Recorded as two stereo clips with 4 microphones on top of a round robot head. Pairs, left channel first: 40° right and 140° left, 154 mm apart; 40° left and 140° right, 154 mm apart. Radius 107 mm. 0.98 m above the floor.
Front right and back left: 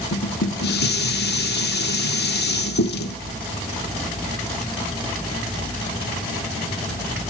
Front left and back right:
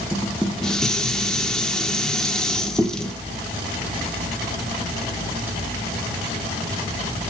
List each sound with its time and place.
0.1 s dishes clattering: 45° right, 2.0 m